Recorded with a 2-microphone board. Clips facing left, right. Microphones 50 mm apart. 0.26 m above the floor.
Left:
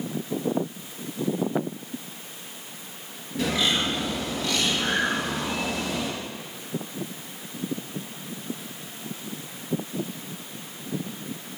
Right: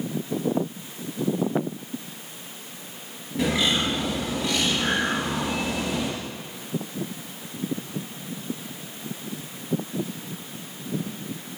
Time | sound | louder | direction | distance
3.4 | a bird | right 1 dB | 10° right (ahead or behind) | 3.5 m